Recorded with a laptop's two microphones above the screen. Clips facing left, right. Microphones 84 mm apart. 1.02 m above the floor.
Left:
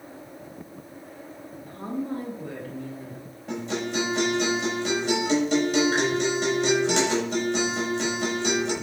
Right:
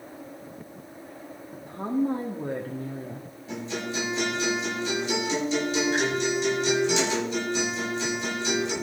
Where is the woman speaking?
20° right (ahead or behind), 1.6 m; by 3.3 s 55° right (ahead or behind), 1.6 m.